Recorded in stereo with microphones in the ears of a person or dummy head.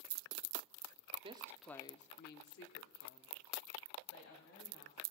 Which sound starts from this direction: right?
A woman speaking, at 1.2 s.